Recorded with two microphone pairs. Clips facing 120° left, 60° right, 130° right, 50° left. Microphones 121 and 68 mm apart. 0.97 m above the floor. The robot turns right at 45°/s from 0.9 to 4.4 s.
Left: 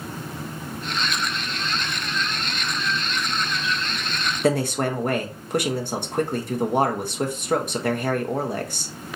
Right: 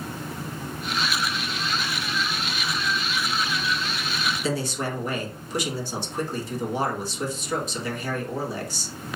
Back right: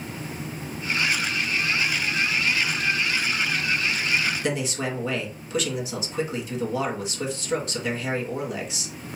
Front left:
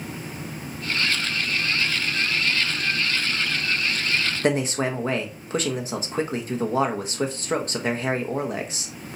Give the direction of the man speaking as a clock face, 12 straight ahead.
9 o'clock.